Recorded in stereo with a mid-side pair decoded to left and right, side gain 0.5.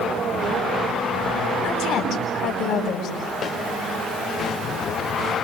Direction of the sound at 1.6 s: 65° left.